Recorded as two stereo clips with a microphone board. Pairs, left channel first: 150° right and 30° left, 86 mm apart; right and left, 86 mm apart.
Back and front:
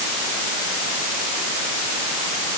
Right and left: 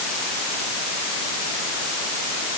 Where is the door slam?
I don't hear a door slam.